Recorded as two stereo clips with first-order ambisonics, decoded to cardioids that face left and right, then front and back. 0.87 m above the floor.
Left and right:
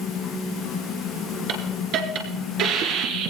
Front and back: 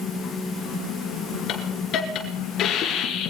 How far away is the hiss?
About 2.5 m.